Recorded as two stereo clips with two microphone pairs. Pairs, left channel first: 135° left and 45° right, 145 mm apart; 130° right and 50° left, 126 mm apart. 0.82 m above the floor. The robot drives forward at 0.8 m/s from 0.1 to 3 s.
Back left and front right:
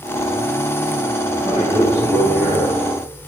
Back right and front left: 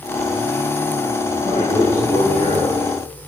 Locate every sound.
1.3 s a man speaking: 110° right, 8.5 m; by 2.8 s 115° right, 9 m